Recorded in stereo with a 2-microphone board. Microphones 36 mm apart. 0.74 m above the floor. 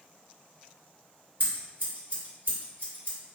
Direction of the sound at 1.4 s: 65° right (ahead or behind).